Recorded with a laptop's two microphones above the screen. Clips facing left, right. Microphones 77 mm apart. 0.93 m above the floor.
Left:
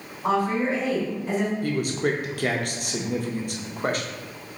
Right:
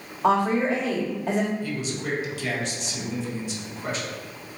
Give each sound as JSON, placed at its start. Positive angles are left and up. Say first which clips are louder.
{"t": 0.2, "sound": "a woman speaking", "louder": "right 2 dB", "side_deg": -75, "distance_m": 1.5}
{"t": 1.6, "sound": "a man speaking", "louder": "left 5 dB", "side_deg": 50, "distance_m": 0.5}